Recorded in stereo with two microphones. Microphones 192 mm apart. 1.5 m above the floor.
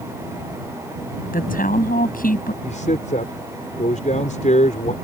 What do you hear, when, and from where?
1.3 s a woman speaking: 45° left (ahead or behind)
2.6 s a man speaking: 40° left (ahead or behind)